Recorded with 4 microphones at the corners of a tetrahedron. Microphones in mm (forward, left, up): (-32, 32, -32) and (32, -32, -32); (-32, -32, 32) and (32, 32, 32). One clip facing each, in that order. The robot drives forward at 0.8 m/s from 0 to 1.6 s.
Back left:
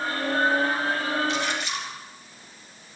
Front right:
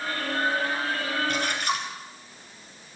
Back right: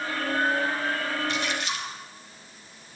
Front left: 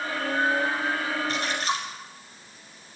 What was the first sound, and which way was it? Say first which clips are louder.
A splash: front right 1 dB, front left 2 dB; 5° right.